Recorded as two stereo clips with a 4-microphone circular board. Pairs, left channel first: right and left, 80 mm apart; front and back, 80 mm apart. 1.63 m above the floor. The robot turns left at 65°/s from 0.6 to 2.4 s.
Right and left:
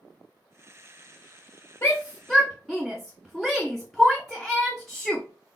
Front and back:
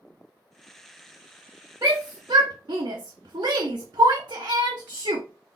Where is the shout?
140° right, 0.6 m; by 5.2 s straight behind, 0.6 m.